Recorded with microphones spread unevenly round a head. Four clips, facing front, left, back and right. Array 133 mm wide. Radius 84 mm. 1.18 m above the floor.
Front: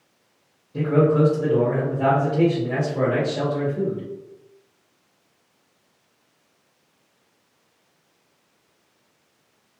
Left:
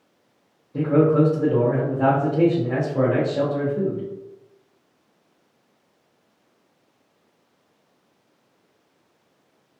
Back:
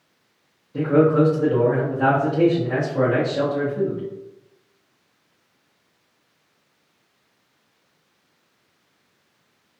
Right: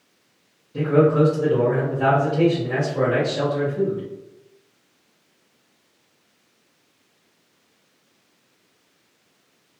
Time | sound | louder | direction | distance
0.7 | a man speaking | even, back 2 dB | 75° left | 0.6 m